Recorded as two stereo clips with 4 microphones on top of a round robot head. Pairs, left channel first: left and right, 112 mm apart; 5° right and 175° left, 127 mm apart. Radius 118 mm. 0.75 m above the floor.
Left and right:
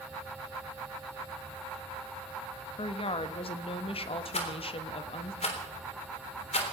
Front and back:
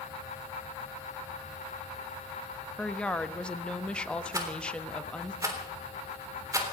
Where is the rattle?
110° left, 3.5 m.